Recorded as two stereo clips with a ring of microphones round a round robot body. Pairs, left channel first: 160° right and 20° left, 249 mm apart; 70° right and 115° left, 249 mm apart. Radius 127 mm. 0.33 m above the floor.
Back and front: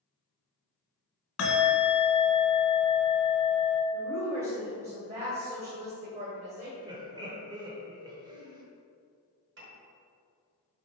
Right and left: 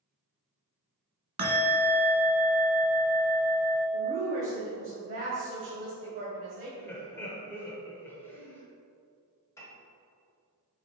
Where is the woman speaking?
70° left, 1.9 m.